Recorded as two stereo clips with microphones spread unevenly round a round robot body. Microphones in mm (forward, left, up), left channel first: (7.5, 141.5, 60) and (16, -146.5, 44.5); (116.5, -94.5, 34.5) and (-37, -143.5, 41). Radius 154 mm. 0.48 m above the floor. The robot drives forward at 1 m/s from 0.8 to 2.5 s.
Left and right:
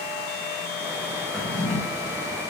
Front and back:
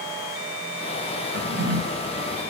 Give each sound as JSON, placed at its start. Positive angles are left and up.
{"t": 1.3, "sound": "a drawer", "azimuth_deg": 180, "distance_m": 1.8}